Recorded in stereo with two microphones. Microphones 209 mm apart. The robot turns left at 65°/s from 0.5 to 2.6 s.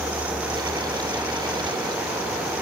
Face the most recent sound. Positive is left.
No sound to turn to.